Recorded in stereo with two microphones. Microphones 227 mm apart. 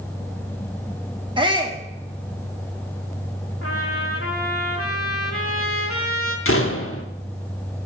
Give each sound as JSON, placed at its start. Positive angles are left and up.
{"t": 1.4, "sound": "a shout", "side_deg": -20, "distance_m": 1.2}
{"t": 3.6, "sound": "a trumpet", "side_deg": 75, "distance_m": 1.5}
{"t": 6.5, "sound": "a door slam", "side_deg": 70, "distance_m": 0.9}